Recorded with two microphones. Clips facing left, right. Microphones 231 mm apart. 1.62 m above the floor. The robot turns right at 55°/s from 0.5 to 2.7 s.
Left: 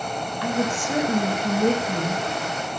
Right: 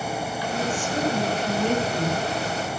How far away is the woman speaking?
About 5.5 m.